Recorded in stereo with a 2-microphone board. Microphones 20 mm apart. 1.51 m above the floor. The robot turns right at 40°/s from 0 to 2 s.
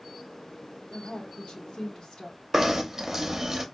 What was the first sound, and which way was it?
A woman speaking, 85° left.